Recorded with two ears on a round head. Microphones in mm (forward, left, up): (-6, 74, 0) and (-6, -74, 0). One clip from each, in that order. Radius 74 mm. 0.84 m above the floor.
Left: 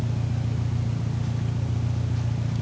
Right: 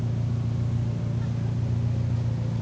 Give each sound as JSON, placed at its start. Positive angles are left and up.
{"t": 0.0, "sound": "an engine running", "side_deg": 60, "distance_m": 0.8}